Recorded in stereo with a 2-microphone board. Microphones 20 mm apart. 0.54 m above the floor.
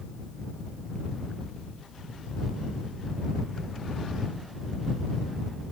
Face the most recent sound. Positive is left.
No sound to turn to.